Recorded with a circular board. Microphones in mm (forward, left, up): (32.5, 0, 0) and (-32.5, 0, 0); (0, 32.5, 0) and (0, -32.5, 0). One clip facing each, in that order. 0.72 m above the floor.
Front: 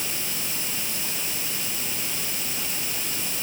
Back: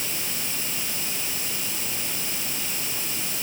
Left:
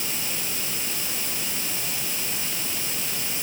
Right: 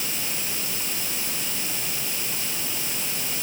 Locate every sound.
Only background noise.